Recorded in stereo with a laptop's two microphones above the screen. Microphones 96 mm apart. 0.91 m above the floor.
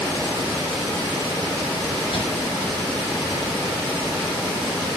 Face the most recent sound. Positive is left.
turn(degrees=75)  # may be behind; listen again after turning